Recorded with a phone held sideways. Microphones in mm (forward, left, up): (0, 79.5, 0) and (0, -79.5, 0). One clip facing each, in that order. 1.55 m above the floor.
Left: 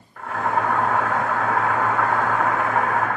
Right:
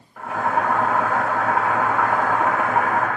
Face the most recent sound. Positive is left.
turn(degrees=-10)  # may be behind; listen again after turning